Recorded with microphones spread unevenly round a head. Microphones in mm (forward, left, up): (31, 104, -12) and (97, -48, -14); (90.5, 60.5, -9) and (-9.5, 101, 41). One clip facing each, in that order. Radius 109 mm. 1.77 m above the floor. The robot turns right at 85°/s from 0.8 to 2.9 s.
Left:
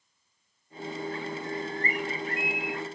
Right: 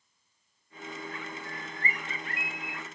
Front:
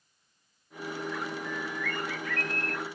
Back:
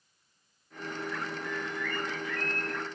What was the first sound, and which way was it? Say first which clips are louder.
A bird: left 7 dB, even; 105° right.